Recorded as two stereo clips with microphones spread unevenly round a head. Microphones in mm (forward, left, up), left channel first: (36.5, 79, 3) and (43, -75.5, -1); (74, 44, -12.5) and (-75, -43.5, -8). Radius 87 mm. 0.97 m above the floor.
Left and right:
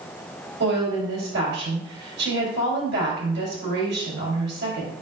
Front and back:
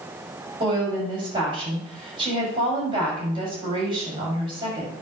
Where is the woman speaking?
85° right, 5 m.